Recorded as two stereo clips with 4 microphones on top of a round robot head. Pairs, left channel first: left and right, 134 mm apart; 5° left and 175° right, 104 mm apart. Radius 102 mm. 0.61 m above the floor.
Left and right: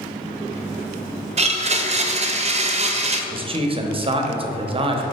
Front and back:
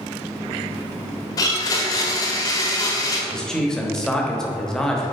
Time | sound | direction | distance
1.4 | a blender | 50° right | 0.7 m
3.3 | a man speaking | 75° right | 0.9 m